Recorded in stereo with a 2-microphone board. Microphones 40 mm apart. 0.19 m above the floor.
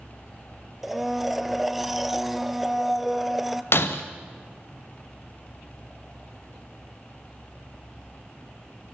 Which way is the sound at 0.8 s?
5° right (ahead or behind).